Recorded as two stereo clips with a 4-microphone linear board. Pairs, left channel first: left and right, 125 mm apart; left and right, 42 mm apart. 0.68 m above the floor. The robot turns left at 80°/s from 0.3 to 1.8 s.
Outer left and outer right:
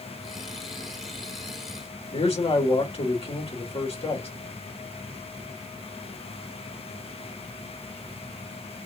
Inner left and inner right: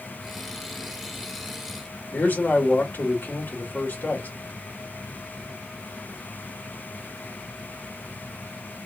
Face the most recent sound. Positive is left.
turn(degrees=50)  # may be behind; listen again after turning